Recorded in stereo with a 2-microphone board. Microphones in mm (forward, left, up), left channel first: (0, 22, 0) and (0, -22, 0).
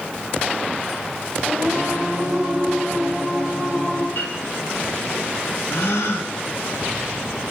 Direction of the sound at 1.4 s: 10° right (ahead or behind).